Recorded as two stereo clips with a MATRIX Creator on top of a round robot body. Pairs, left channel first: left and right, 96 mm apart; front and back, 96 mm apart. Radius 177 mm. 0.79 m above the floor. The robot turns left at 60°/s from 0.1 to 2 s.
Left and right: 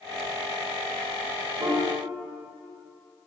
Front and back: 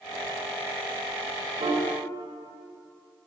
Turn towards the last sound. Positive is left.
turn(degrees=-165)